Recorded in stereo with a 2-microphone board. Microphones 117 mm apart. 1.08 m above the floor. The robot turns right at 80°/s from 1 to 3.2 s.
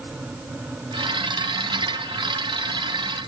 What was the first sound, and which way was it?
Only background noise.